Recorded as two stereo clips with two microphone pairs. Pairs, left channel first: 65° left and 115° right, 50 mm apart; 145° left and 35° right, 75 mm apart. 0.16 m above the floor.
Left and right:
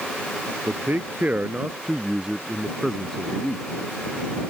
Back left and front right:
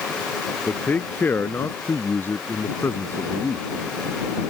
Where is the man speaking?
150° right; by 3.6 s 105° left.